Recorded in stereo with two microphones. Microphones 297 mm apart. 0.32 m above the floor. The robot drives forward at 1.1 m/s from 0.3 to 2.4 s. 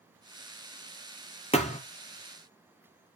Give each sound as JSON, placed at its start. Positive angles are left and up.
{"t": 1.5, "sound": "a thud", "side_deg": 20, "distance_m": 1.2}